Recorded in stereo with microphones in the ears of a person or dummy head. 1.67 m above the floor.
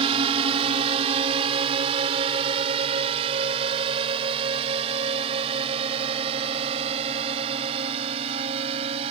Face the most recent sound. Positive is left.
turn(degrees=-25)  # may be behind; listen again after turning